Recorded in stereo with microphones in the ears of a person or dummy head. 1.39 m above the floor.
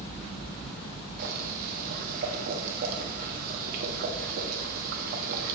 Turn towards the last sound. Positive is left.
turn(degrees=-45)  # may be behind; listen again after turning